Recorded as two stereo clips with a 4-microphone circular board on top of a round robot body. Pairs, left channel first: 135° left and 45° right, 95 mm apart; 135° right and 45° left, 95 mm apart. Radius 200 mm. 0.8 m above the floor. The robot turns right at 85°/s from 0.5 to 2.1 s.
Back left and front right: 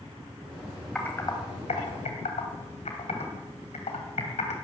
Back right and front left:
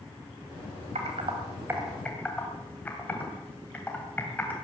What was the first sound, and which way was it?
Typing on a keyboard, 50° left.